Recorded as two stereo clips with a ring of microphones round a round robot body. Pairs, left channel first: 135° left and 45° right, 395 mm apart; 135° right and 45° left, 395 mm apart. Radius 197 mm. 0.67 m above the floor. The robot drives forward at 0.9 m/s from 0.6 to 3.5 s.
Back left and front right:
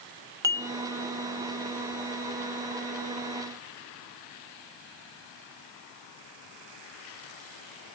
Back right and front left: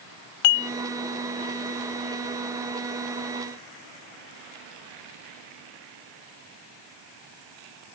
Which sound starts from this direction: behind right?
Dishes clattering, at 0.4 s.